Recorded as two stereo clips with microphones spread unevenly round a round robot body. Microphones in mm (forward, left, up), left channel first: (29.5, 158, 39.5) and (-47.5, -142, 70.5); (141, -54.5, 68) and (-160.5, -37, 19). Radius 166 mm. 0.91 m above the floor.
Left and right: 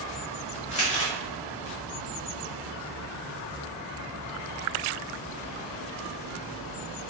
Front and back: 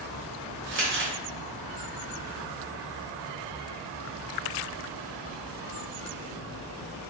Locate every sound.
0.7 s crumpling: 135° left, 0.7 m